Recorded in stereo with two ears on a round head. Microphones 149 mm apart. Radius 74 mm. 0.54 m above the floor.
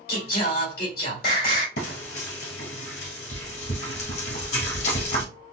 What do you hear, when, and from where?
0.1 s singing: 60° left (ahead or behind), 2 m
1.8 s frying: 70° left (ahead or behind), 2 m